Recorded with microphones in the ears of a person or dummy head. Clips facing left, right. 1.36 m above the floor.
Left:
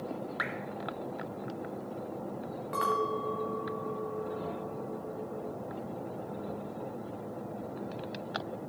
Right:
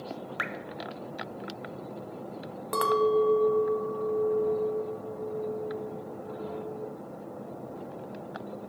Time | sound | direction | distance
0.4 | dripping | 25° right (ahead or behind) | 0.7 m
2.7 | a clink | 60° right (ahead or behind) | 0.9 m